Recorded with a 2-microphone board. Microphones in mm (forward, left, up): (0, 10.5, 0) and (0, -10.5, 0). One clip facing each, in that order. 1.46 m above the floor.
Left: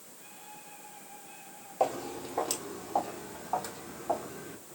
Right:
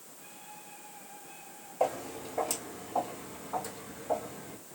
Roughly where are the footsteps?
Left.